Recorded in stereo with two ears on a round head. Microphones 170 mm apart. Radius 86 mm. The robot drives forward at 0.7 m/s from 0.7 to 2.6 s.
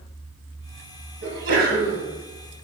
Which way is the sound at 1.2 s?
85° right.